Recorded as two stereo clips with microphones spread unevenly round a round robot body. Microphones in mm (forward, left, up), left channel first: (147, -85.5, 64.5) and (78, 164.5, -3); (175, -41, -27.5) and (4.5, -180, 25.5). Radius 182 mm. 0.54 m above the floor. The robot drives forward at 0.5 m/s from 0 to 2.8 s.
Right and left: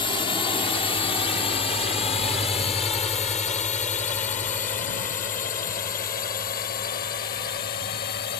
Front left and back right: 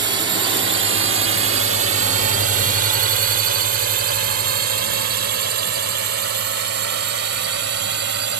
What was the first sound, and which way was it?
A drone, 160° right.